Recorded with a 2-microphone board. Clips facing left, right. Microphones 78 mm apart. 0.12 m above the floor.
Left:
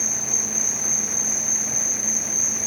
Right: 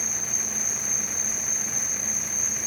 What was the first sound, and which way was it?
An insect, 65° left (ahead or behind).